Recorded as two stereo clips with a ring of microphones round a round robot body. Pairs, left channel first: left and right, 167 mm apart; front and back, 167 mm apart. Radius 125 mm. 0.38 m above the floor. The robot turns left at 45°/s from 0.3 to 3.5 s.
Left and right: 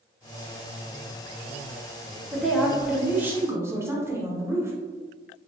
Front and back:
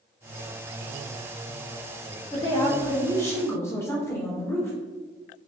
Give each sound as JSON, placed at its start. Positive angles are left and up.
{"t": 2.3, "sound": "a woman speaking", "azimuth_deg": 10, "distance_m": 0.8}